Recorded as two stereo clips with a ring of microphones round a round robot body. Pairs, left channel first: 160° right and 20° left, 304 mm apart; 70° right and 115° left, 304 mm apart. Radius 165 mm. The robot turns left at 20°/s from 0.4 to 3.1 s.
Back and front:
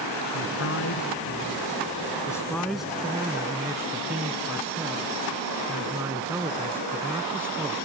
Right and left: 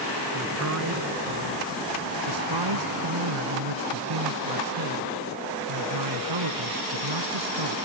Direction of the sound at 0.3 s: 160° left.